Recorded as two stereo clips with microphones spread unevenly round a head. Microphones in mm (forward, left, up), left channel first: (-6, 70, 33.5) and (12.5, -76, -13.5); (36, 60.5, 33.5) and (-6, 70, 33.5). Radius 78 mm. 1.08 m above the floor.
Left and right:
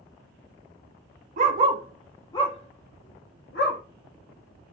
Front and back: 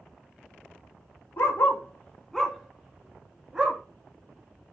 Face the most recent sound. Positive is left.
turn(degrees=100)